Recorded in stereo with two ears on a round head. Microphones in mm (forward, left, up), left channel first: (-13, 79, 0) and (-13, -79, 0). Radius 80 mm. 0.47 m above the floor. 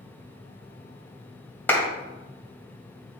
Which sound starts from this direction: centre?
A clap, at 1.7 s.